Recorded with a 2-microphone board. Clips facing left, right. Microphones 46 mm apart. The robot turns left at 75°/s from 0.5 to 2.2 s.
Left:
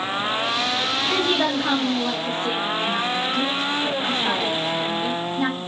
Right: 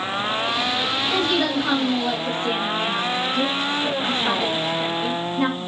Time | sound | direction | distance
1.1 | a woman speaking | 60° left (ahead or behind) | 3 m